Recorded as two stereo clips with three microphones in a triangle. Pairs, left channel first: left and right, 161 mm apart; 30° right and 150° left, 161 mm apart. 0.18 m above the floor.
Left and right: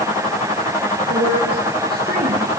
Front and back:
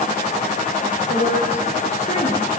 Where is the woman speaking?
75° right, 7 m; by 2.5 s 65° right, 7 m.